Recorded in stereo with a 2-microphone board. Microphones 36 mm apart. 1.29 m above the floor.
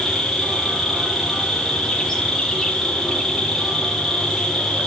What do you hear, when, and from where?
0.0 s an insect: 15° left (ahead or behind), 5 m